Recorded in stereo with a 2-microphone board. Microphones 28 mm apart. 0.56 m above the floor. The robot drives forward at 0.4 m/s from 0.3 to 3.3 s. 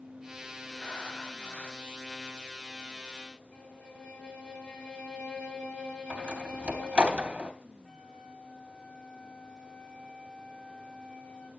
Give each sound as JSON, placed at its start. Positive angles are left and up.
{"t": 0.8, "sound": "breathing", "side_deg": 60, "distance_m": 1.2}
{"t": 3.5, "sound": "a violin", "side_deg": 55, "distance_m": 2.0}
{"t": 6.1, "sound": "a door slam", "side_deg": -40, "distance_m": 2.5}
{"t": 7.8, "sound": "a flute", "side_deg": 35, "distance_m": 3.5}